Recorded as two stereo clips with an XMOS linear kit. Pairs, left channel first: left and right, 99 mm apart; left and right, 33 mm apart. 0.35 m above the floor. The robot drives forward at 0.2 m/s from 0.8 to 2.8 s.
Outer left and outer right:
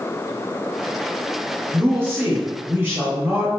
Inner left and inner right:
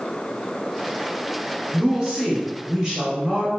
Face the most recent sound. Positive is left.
turn(degrees=-20)  # may be behind; listen again after turning